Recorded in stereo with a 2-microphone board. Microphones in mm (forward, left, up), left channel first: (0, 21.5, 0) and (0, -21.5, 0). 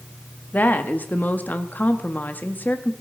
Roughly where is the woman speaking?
Left.